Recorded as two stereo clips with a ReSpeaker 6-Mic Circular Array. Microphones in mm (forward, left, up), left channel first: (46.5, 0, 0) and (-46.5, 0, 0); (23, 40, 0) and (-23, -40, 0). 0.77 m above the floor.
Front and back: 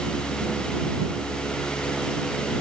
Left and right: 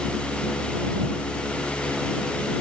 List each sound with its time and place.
Only background noise.